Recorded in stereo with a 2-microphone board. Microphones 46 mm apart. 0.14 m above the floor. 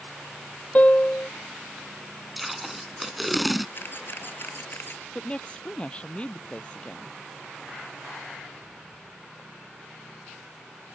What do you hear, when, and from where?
0.8 s a piano: 30° left (ahead or behind)
2.4 s tape being pulled: centre (ahead or behind)
3.8 s a camera shutter: 50° left (ahead or behind)
5.2 s a woman speaking: 25° left (ahead or behind)